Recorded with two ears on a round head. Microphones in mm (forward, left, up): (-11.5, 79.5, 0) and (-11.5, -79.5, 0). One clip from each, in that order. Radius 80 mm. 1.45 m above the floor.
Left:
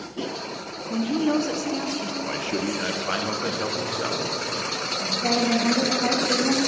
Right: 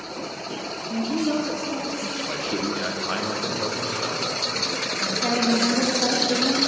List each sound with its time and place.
0.9 s a woman speaking: 20° left (ahead or behind), 0.6 m
2.2 s a man speaking: 10° left (ahead or behind), 0.7 m
5.0 s a woman speaking: 15° right (ahead or behind), 0.8 m